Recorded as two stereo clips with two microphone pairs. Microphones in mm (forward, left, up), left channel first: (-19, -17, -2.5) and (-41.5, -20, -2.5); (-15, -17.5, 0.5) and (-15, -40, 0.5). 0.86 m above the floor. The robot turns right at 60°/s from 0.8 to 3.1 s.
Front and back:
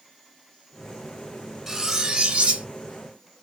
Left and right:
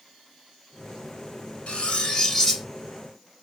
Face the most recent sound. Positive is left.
turn(degrees=-160)